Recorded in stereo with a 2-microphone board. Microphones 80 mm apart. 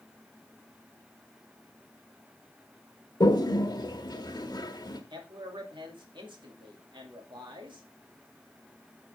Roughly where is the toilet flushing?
Left.